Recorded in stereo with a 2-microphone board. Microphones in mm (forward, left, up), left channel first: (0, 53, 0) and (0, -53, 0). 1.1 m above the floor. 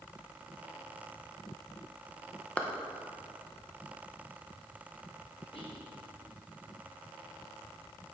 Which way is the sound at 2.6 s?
10° left (ahead or behind).